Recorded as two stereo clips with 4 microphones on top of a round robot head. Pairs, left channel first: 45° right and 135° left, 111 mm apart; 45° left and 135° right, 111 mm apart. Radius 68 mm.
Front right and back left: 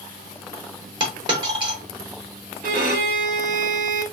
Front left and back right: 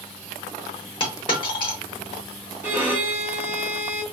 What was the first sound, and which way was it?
A dropped coin, 95° left.